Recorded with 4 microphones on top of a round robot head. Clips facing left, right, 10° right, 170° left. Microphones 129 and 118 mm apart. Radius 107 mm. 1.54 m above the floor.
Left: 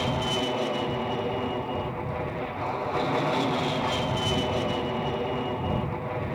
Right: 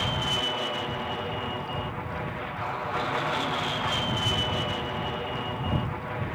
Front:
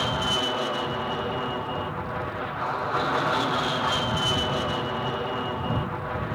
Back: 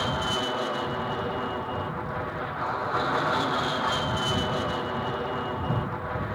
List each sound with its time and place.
0.0 s an aircraft: 75° left